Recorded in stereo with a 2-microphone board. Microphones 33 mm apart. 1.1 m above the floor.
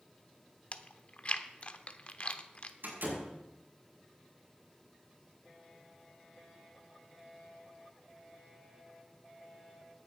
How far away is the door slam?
About 6 m.